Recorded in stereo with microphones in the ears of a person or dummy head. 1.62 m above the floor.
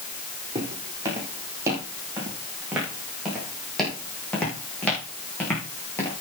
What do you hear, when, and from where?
0.6 s footsteps: 20° right (ahead or behind), 5 m; by 6.2 s 15° left (ahead or behind), 6.5 m